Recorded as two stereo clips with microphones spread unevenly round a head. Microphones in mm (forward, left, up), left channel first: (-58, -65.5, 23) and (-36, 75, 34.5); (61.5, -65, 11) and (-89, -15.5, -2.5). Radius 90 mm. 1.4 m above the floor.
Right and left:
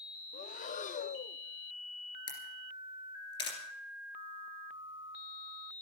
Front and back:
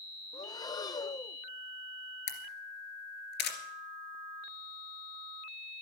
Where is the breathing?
85° right, 0.6 m.